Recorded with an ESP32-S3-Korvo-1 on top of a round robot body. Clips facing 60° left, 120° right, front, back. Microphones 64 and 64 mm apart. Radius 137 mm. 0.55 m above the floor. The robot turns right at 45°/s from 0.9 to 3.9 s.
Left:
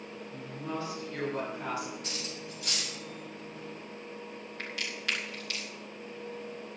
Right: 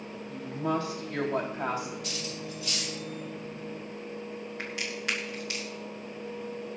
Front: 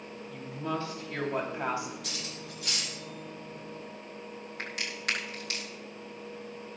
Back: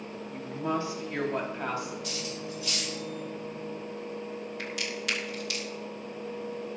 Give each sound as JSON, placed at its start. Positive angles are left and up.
{"t": 0.3, "sound": "a woman speaking", "azimuth_deg": -110, "distance_m": 4.0}
{"t": 2.0, "sound": "cutlery clinking", "azimuth_deg": 0, "distance_m": 3.0}
{"t": 4.6, "sound": "a crack", "azimuth_deg": -50, "distance_m": 4.5}